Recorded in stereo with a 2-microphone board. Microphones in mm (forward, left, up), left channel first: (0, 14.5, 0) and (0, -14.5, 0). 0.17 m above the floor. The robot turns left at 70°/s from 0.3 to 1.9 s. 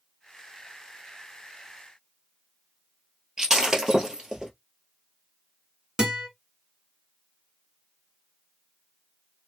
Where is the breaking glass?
20° right (ahead or behind), 1.3 m.